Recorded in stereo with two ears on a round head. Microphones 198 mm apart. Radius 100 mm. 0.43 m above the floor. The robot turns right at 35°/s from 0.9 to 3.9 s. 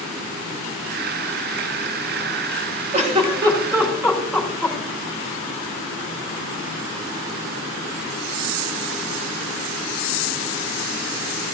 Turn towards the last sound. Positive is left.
turn(degrees=-5)  # may be behind; listen again after turning